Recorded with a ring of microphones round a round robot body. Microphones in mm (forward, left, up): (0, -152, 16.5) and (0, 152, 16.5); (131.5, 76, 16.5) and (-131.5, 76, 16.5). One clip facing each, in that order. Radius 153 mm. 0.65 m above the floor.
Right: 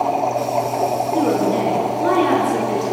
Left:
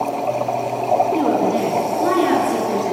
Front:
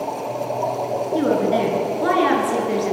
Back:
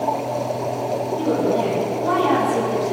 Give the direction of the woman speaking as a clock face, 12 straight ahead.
12 o'clock.